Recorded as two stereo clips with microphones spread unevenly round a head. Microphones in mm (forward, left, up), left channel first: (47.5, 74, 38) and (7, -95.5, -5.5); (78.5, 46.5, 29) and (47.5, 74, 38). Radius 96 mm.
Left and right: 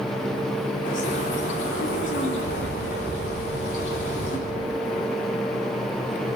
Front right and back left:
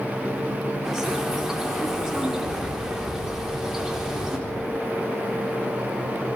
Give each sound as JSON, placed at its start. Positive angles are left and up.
{"t": 0.8, "sound": "a bird", "azimuth_deg": 60, "distance_m": 4.0}